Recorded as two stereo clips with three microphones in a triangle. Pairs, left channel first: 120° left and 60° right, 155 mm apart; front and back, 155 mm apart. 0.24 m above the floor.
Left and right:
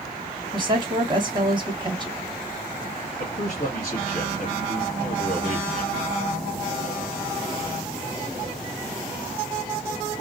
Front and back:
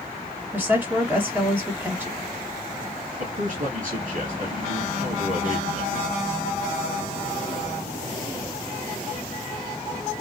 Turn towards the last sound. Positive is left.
turn(degrees=155)